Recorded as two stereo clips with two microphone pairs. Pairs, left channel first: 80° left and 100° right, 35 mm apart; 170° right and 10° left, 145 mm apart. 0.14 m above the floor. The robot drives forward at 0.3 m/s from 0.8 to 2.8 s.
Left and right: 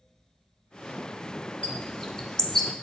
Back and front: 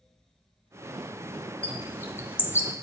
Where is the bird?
125° left, 1.6 m; by 2.7 s 145° left, 1.7 m.